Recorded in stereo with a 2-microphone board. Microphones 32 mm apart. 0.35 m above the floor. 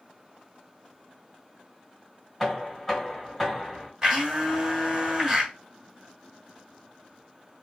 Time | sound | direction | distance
2.4 | knocking | centre (ahead or behind) | 1.6 m
4.0 | a blender | 20° right (ahead or behind) | 1.8 m